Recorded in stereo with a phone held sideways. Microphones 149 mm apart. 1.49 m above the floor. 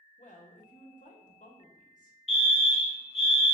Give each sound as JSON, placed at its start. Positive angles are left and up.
{"t": 0.2, "sound": "a woman speaking", "side_deg": 60, "distance_m": 1.0}
{"t": 2.3, "sound": "a fire alarm", "side_deg": 45, "distance_m": 0.8}